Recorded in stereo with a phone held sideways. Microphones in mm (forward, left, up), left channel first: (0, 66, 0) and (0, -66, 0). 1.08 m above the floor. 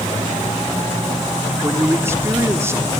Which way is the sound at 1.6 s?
20° right (ahead or behind).